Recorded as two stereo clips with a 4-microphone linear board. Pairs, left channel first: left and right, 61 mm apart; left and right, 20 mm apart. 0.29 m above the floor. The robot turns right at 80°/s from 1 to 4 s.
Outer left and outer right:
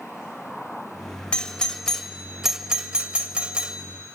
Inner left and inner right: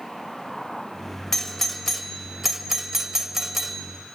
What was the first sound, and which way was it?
A doorbell, 15° left (ahead or behind).